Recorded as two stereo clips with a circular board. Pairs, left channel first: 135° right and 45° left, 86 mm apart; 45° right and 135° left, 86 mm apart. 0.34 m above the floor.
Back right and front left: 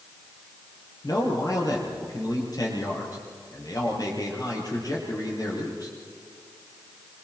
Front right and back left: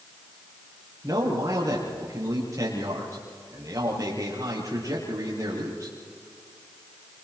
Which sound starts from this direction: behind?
A man speaking, at 1.0 s.